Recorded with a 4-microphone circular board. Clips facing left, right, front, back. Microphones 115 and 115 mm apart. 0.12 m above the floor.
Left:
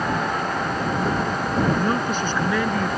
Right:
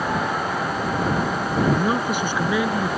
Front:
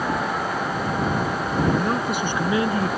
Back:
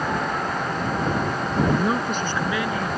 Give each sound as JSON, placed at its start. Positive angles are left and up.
{"t": 1.6, "sound": "a man speaking", "azimuth_deg": -150}